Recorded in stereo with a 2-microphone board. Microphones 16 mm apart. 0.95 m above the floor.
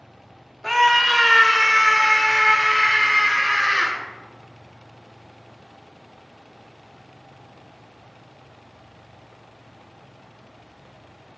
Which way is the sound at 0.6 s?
5° left (ahead or behind).